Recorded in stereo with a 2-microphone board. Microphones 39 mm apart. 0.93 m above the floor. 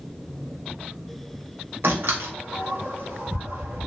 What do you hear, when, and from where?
1.8 s a door slam: 70° right (ahead or behind), 1.3 m